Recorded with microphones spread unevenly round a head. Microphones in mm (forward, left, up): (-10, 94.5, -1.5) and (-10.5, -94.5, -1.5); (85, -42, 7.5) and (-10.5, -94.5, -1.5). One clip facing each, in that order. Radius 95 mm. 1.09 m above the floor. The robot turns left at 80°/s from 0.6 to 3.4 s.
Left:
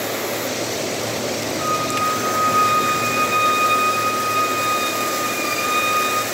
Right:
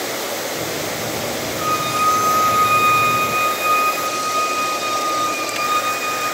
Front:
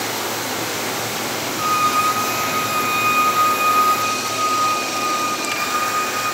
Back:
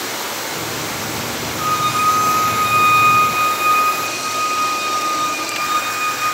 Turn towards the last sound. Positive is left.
turn(degrees=155)